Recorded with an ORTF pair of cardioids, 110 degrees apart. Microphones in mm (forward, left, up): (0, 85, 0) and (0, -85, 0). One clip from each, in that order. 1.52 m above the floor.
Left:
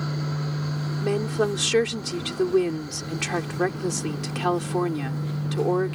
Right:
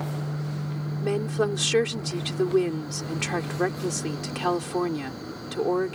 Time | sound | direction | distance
1.0 | a woman speaking | 10° left | ?